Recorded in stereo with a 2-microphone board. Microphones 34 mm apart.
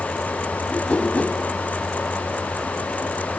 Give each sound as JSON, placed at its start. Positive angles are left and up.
{"t": 0.7, "sound": "a whoosh", "side_deg": 35, "distance_m": 2.0}